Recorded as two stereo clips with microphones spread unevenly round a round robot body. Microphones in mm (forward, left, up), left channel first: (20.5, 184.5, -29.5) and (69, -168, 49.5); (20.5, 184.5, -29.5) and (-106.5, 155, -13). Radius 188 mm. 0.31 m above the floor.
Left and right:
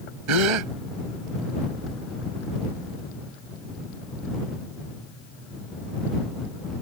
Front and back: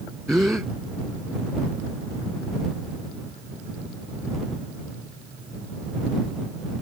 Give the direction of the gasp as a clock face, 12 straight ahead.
3 o'clock.